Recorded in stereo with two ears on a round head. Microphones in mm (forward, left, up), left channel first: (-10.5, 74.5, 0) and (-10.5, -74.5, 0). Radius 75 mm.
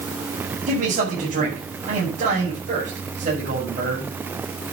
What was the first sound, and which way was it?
A man speaking, 50° right (ahead or behind).